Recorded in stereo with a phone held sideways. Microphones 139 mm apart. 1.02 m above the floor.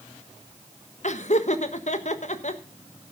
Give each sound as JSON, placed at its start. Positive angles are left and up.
{"t": 1.0, "sound": "laughter", "side_deg": 55, "distance_m": 1.3}